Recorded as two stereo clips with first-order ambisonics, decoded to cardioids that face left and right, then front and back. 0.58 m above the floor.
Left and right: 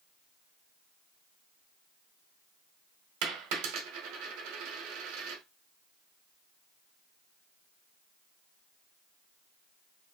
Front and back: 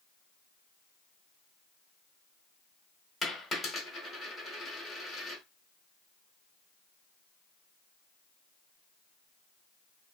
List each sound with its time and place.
3.2 s a dropped coin: 80° right, 1.3 m